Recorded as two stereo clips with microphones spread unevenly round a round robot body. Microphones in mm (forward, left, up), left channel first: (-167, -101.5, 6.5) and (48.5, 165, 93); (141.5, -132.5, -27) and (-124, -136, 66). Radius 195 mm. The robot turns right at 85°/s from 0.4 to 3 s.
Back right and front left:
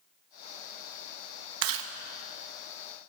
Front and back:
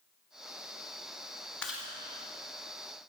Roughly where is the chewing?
Left.